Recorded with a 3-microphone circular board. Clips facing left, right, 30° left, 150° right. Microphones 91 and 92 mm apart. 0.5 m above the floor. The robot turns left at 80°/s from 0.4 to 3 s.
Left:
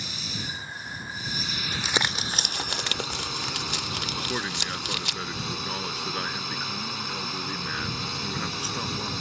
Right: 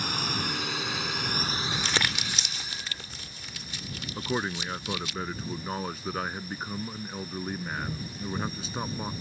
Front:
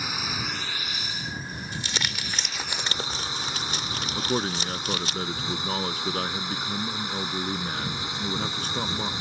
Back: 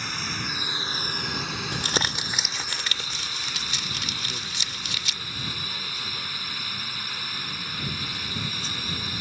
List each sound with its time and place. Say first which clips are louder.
0.0 s a drone: right 6 dB, front 1 dB; 55° right; by 9.2 s 100° left
1.7 s crumpling: left 4 dB, back 5 dB; straight behind; by 5.2 s 80° left
4.2 s a man speaking: right 4 dB, front 10 dB; 10° right